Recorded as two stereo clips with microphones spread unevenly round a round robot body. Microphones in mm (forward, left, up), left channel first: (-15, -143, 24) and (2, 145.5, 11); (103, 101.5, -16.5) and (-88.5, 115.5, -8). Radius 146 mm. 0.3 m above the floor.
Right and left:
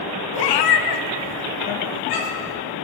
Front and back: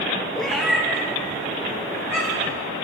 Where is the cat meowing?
90° right, 0.7 m; by 2.5 s 105° right, 3.5 m.